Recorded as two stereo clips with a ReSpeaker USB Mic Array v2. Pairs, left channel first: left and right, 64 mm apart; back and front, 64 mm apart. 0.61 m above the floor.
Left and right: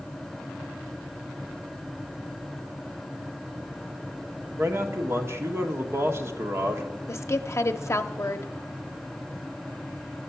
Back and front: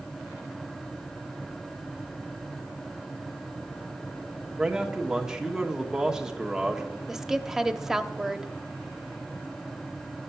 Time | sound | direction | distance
4.6 | a man speaking | 80° right | 1.3 m
7.1 | a woman speaking | 80° left | 0.8 m